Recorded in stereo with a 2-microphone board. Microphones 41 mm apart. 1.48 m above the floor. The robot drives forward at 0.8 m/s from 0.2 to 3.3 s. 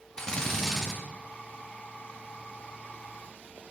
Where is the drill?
15° left (ahead or behind), 1.8 m; by 1.0 s 10° left (ahead or behind), 2.5 m.